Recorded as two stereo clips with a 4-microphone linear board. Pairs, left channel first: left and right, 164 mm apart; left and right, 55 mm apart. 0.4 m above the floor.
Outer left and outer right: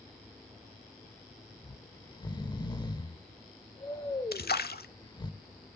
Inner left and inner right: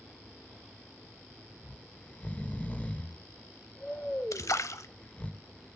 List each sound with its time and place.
1.6 s snoring: 25° left (ahead or behind), 0.6 m
4.3 s a splash: 75° left (ahead or behind), 0.8 m